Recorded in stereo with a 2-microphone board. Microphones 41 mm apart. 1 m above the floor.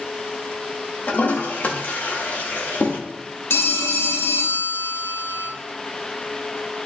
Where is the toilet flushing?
50° left (ahead or behind), 1.0 m.